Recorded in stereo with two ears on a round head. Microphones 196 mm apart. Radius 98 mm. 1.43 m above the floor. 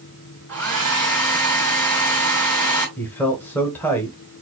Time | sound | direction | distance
0.5 | a hair dryer | 10° left (ahead or behind) | 3.5 m
3.0 | a man speaking | 10° left (ahead or behind) | 1.2 m